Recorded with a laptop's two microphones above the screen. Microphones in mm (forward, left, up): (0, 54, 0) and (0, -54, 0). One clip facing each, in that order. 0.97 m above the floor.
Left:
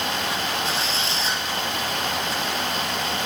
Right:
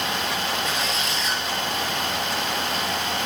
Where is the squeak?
30° left (ahead or behind), 3.5 m.